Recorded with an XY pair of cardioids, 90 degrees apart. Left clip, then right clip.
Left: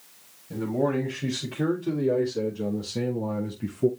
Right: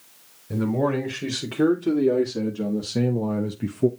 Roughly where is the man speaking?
Ahead right.